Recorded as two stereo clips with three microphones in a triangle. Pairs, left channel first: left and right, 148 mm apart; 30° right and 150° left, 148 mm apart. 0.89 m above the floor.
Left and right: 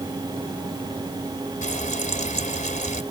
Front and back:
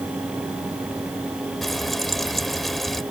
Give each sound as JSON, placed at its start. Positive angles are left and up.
{"t": 1.6, "sound": "frying", "azimuth_deg": 60}